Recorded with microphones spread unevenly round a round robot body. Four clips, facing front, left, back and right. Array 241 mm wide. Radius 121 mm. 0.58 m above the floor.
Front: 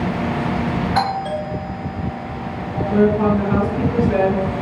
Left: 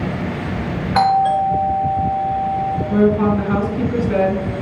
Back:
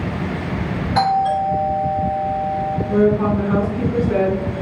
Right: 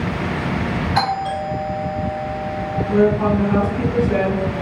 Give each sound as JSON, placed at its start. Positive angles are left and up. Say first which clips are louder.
{"t": 0.9, "sound": "a doorbell", "louder": "left 9 dB, back 8 dB", "azimuth_deg": 125, "distance_m": 3.5}
{"t": 2.9, "sound": "a woman speaking", "louder": "even, front 1 dB", "azimuth_deg": 90, "distance_m": 3.0}